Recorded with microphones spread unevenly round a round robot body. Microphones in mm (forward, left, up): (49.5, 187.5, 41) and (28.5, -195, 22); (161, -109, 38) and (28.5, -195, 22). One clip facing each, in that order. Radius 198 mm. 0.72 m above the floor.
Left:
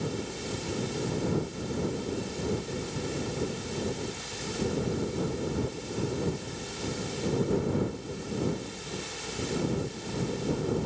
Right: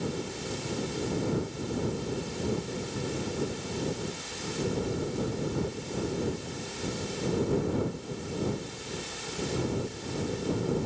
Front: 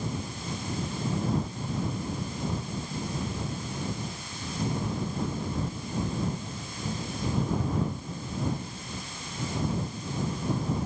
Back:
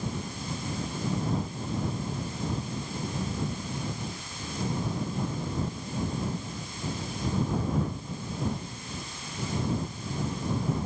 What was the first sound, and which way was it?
Only background noise.